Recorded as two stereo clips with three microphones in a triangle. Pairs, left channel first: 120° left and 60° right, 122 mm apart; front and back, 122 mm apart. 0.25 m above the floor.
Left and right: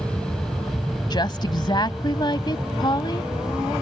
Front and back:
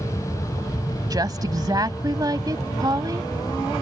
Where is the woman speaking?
145° left.